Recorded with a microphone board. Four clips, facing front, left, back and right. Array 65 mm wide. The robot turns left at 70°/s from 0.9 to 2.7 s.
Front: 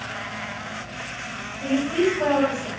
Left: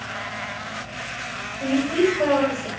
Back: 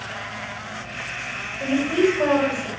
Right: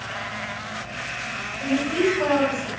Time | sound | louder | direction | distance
1.6 | a woman speaking | left 2 dB, back 2 dB | 170° left | 1.6 m